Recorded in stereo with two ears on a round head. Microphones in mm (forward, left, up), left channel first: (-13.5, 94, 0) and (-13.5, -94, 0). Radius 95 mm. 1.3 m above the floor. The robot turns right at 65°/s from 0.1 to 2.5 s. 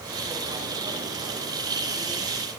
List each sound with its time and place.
Only background noise.